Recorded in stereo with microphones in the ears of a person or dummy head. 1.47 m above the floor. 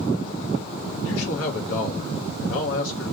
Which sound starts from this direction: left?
A man speaking, at 1.0 s.